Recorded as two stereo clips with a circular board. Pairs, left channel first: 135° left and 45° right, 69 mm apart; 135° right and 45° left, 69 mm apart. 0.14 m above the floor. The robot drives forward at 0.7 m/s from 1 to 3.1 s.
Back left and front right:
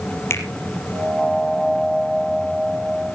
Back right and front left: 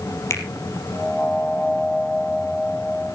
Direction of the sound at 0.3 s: 175° right.